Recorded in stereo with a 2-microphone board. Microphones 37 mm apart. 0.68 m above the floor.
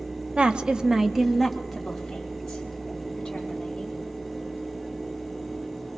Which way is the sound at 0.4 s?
25° right (ahead or behind).